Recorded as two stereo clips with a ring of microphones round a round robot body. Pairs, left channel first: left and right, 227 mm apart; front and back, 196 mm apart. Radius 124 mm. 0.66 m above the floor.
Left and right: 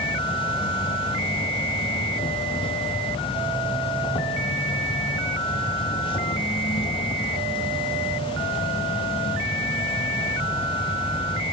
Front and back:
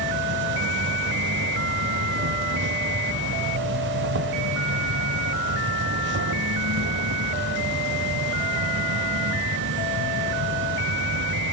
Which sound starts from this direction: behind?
An insect, at 0.0 s.